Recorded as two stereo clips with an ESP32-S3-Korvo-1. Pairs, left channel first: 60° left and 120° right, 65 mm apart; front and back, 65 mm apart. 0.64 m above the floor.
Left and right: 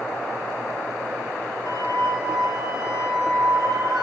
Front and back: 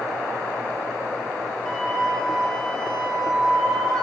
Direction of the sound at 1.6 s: 80° left.